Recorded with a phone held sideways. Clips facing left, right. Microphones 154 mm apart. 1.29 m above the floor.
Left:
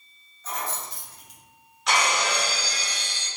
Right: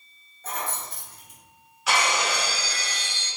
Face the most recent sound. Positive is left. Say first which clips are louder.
# even
turn(degrees=-5)  # may be behind; listen again after turning